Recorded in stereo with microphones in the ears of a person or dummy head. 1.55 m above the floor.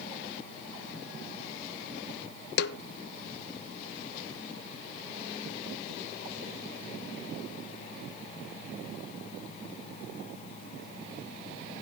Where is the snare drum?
60° left (ahead or behind), 0.6 m.